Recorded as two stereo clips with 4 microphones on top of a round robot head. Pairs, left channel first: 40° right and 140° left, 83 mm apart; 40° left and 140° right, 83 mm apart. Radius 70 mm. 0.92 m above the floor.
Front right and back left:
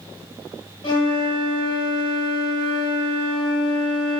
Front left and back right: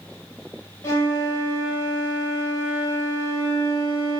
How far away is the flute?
About 4 m.